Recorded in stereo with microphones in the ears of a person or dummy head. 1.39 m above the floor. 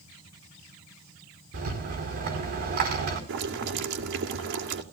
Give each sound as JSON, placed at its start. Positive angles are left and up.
{"t": 1.5, "sound": "a rattle", "side_deg": -50, "distance_m": 4.5}
{"t": 3.3, "sound": "boiling", "side_deg": -70, "distance_m": 2.5}